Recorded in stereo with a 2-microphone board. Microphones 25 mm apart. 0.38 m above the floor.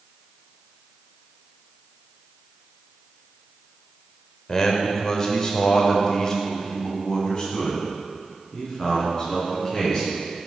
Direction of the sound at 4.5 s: 25° left (ahead or behind).